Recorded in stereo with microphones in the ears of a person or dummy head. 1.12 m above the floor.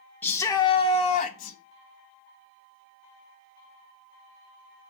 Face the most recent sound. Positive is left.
turn(degrees=45)  # may be behind; listen again after turning